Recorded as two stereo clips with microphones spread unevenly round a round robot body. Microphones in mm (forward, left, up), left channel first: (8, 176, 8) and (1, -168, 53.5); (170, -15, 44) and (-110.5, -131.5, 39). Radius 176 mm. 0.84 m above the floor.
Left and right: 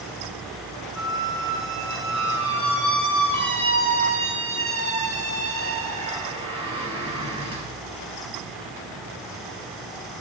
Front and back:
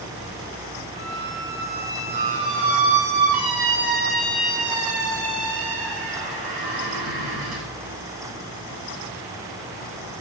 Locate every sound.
0.9 s a squeak: 165° right, 4 m